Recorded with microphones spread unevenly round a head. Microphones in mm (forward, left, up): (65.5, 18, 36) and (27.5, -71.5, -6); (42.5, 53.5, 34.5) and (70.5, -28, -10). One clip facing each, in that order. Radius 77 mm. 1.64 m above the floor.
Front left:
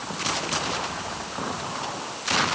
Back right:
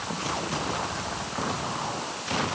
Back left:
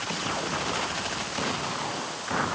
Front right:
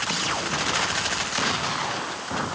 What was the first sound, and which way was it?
Only background noise.